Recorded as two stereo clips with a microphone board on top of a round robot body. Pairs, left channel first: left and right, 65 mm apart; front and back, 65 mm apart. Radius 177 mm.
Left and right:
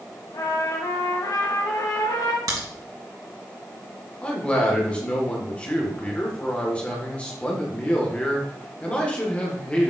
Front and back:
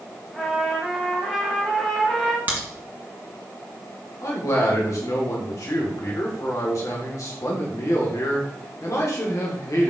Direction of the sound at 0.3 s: 85° left.